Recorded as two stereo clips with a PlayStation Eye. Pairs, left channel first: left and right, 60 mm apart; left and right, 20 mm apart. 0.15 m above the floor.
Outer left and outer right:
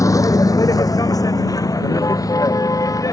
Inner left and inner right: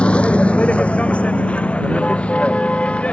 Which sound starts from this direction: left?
A vehicle, at 0.0 s.